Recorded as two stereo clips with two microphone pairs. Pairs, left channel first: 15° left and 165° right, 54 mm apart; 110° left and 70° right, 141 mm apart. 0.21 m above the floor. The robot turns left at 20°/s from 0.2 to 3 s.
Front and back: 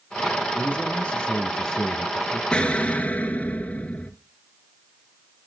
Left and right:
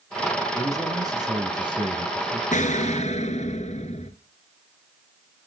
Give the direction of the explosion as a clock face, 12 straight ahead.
9 o'clock.